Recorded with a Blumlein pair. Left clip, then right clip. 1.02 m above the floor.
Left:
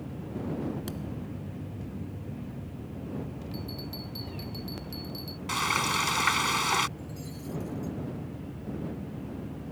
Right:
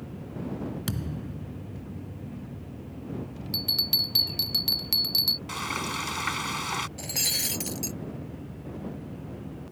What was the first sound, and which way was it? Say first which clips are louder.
A thud: right 2 dB; 65° right.